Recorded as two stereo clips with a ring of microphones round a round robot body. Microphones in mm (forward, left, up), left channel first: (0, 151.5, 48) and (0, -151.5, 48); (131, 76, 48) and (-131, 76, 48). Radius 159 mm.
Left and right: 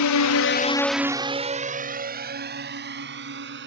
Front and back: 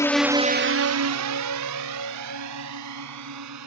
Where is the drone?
80° left; by 3.7 s 145° right.